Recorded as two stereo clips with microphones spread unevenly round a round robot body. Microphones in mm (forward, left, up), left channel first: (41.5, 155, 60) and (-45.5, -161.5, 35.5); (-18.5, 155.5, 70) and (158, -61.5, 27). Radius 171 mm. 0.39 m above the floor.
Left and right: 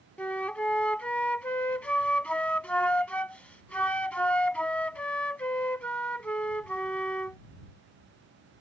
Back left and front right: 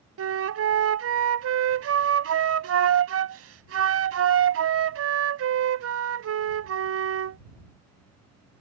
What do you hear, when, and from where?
0.2 s a flute: 10° right